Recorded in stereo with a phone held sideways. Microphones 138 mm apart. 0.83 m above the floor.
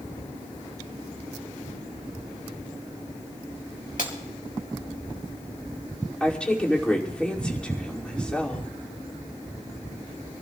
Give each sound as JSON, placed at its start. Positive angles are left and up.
{"t": 4.0, "sound": "breaking glass", "side_deg": 85, "distance_m": 3.5}
{"t": 6.2, "sound": "a woman speaking", "side_deg": 10, "distance_m": 2.5}